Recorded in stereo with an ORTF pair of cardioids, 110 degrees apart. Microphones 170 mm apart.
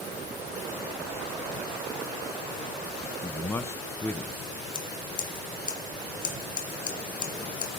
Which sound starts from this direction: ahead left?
Scissors, at 4.7 s.